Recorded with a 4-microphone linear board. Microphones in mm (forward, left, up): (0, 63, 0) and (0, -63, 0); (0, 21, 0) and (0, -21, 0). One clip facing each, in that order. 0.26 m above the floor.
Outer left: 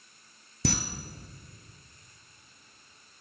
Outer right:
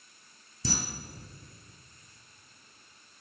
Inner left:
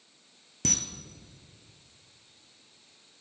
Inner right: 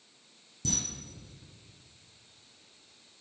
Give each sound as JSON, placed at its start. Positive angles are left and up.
{"t": 0.7, "sound": "a camera shutter", "side_deg": 90, "distance_m": 0.9}